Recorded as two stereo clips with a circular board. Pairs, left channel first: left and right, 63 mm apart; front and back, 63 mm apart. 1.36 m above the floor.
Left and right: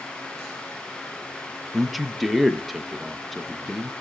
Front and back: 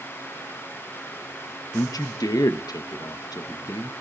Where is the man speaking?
Straight ahead, 0.8 m.